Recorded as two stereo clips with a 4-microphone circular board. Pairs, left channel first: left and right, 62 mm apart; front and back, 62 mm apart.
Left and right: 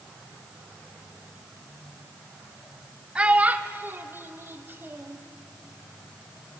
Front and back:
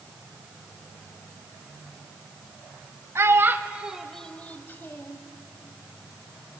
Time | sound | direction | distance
3.1 | a child speaking | 155° right | 1.1 m